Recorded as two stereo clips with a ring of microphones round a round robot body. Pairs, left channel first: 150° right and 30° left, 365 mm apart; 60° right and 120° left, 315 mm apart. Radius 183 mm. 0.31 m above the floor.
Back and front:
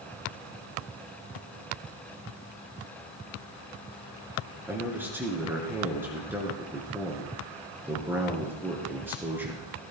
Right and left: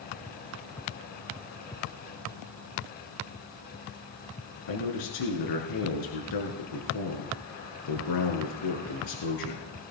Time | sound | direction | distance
4.7 | a man speaking | 55° right | 3.5 m